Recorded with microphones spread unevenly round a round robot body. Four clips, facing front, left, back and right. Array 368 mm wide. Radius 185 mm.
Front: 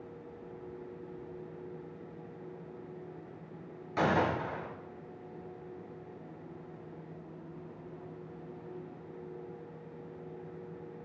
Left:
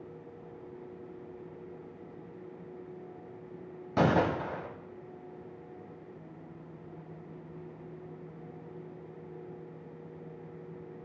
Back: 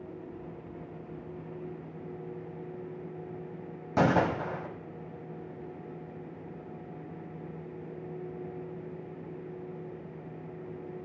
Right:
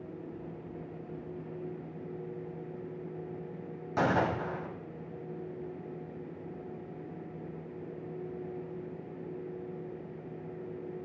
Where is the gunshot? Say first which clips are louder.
Left 2 dB, back 3 dB; 140° left, 1.9 m.